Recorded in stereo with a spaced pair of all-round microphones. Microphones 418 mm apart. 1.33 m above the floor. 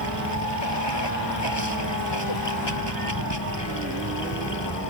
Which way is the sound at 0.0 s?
85° left.